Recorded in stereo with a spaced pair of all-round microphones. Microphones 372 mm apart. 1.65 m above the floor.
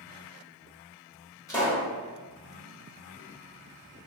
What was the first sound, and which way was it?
A pop, 10° left (ahead or behind).